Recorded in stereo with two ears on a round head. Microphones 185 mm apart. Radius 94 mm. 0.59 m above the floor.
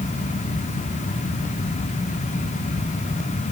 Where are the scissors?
I don't hear scissors.